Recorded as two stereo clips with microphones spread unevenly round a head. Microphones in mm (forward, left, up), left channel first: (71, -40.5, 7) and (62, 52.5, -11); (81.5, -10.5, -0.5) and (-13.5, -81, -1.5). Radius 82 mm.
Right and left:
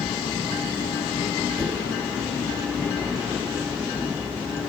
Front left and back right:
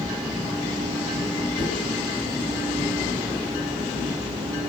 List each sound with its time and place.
1.6 s a whoosh: 10° right, 7 m